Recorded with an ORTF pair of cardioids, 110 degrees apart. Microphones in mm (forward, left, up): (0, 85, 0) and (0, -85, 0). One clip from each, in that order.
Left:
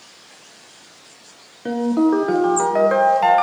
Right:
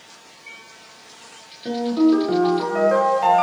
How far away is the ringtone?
About 0.5 m.